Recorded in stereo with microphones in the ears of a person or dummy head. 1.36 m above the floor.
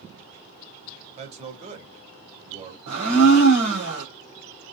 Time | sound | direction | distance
1.2 | a man speaking | 40° right (ahead or behind) | 1.8 m
2.9 | a blender | 60° right (ahead or behind) | 1.9 m